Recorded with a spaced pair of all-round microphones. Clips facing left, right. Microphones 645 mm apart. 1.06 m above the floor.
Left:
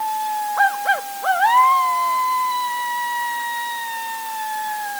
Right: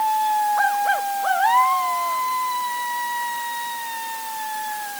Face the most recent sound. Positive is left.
No sound to turn to.